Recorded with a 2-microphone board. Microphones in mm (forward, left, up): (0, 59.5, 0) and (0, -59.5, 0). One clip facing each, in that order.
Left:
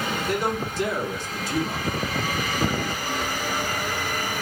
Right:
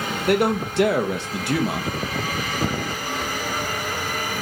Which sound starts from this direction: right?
A man speaking, at 0.3 s.